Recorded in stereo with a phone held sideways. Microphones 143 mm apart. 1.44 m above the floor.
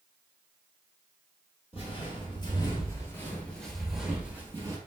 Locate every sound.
1.7 s footsteps: 40° left (ahead or behind), 1.9 m; by 4.8 s 20° right (ahead or behind), 1.5 m